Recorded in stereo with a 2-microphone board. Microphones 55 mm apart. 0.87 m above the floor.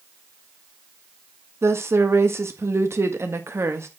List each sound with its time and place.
1.6 s a woman speaking: 55° right (ahead or behind), 1.5 m